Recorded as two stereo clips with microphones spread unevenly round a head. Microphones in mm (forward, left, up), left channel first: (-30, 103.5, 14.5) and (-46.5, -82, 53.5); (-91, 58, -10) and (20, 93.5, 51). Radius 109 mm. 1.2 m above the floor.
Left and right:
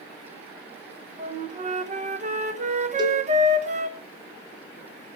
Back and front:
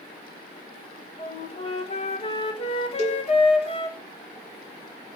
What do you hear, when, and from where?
1.2 s a flute: 150° right, 1.4 m
3.0 s a cowbell: 165° right, 3 m